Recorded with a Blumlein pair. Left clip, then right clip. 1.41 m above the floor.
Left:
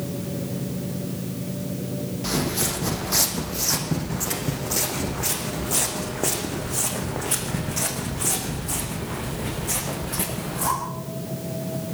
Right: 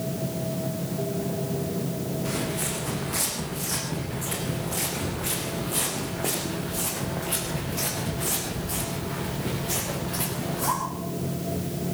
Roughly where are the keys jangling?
No keys jangling in this recording.